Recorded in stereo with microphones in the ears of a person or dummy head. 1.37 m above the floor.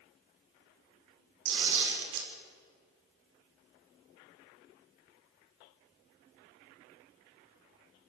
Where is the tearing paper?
70° right (ahead or behind), 5 m.